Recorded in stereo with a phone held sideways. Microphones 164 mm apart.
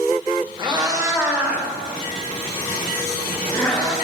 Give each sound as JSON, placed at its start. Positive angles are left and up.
{"t": 0.6, "sound": "a cat meowing", "side_deg": -30, "distance_m": 1.2}